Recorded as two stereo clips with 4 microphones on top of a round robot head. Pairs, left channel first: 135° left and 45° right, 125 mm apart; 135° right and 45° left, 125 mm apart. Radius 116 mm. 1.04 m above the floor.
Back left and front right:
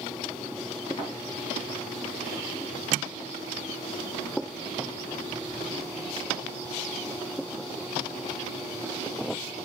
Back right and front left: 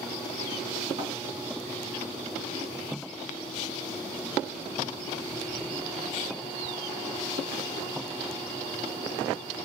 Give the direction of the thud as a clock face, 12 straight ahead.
9 o'clock.